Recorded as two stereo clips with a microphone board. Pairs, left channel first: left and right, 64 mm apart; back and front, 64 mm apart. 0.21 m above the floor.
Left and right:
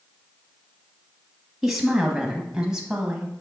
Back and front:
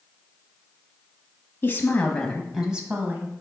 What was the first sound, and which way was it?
A woman speaking, 175° right.